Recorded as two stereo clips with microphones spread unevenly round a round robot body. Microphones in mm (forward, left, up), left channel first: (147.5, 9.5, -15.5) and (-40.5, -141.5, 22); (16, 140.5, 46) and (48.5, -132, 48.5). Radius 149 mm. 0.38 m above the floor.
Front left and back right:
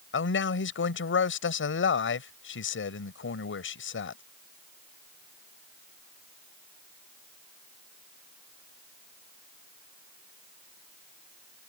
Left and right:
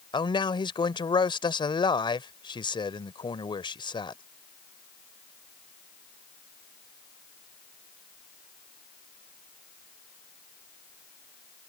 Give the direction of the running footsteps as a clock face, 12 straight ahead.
I don't hear running footsteps.